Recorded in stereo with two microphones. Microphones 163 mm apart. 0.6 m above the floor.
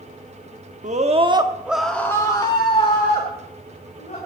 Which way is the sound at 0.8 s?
50° right (ahead or behind).